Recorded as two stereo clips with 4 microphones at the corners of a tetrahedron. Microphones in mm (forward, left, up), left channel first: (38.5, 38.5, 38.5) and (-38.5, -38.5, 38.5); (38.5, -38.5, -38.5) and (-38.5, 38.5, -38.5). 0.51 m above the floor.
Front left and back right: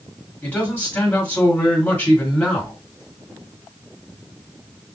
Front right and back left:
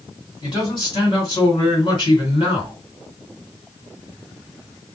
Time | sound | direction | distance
0.4 | a man speaking | 25° right | 1.9 m